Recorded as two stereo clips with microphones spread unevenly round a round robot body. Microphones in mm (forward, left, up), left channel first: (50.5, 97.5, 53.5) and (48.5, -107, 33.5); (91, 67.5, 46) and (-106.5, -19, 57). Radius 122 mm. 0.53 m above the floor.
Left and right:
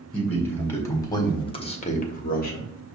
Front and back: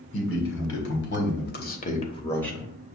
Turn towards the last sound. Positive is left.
turn(degrees=120)